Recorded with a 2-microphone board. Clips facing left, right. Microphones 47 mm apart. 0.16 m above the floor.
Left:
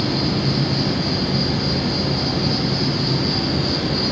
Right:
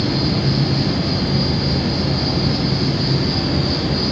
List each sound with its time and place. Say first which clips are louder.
0.0 s an insect: right 1 dB; 5° right (ahead or behind), 4.5 m